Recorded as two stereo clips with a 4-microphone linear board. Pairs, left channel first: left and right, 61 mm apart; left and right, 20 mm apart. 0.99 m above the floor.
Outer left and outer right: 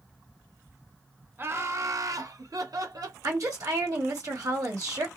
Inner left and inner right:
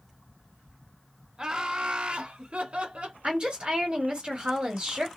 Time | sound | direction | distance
1.4 | laughter | 35° right (ahead or behind) | 0.6 m
3.2 | a woman speaking | 65° right (ahead or behind) | 1.6 m